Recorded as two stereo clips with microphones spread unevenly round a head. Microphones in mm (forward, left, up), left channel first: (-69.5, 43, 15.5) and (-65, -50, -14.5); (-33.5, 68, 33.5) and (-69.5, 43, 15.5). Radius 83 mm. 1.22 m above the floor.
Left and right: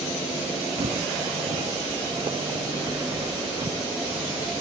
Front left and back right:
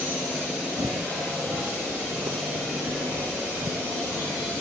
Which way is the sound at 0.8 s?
110° right.